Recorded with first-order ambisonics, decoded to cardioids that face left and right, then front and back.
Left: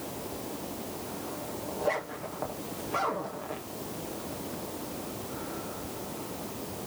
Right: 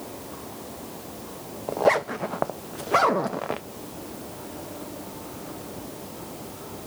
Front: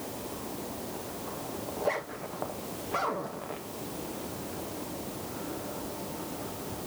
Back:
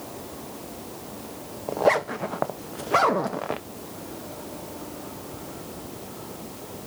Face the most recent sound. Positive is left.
turn(degrees=-135)